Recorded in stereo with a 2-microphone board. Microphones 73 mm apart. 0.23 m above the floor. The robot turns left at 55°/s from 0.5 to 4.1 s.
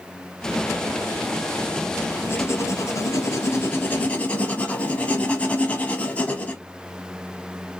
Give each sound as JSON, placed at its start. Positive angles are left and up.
{"t": 2.3, "sound": "writing", "azimuth_deg": 130, "distance_m": 0.9}